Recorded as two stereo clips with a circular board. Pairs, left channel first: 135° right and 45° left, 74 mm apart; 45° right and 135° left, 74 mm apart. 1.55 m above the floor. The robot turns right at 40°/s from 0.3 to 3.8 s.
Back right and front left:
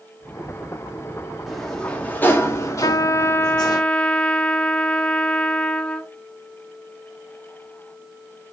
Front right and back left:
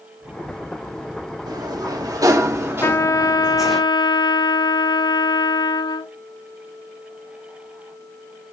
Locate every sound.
1.5 s a sliding door: 135° left, 1.9 m; by 3.8 s 135° right, 1.9 m
2.8 s a trumpet: 100° right, 0.8 m; by 6.1 s 60° right, 0.8 m